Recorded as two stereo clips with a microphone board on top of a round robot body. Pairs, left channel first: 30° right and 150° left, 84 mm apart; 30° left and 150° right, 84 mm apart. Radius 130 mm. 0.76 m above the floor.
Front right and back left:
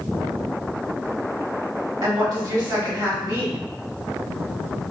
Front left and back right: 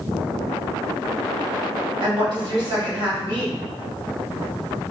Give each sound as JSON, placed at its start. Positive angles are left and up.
{"t": 2.0, "sound": "a woman speaking", "azimuth_deg": -175, "distance_m": 1.5}